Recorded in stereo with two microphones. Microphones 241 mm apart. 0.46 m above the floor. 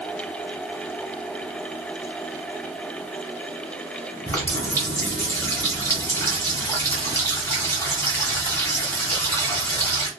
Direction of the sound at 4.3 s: 10° left (ahead or behind).